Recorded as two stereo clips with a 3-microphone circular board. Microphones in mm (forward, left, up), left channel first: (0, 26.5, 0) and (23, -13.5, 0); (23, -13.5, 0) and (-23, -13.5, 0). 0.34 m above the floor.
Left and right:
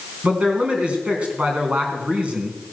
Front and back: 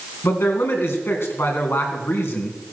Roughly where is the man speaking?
Ahead.